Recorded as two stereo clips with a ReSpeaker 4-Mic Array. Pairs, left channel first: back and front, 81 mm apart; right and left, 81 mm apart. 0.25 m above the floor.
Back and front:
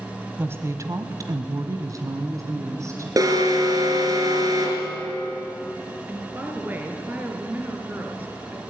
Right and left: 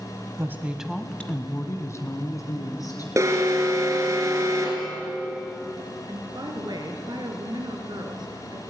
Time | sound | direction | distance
0.4 | a woman speaking | 50° left | 1.3 m
3.2 | an alarm | 40° left | 3 m
6.1 | a woman speaking | 65° left | 3 m